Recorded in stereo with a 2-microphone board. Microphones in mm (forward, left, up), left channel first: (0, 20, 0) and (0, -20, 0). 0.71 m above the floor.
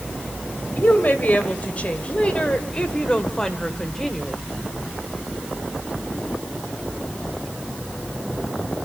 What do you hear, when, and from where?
0.8 s a woman speaking: 45° left (ahead or behind), 3 m; by 4.4 s 5° left (ahead or behind), 2 m